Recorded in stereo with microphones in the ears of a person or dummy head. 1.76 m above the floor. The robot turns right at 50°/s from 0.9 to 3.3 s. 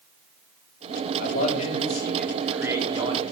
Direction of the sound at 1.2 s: 120° left.